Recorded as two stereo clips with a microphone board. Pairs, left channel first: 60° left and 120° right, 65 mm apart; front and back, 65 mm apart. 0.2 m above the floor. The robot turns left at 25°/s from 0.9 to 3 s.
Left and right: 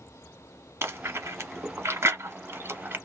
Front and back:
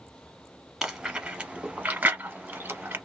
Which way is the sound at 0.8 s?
100° right.